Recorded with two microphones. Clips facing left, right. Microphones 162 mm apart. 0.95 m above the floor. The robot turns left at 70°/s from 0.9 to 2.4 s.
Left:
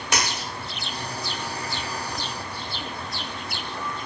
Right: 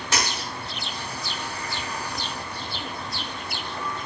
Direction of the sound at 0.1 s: 15° left (ahead or behind).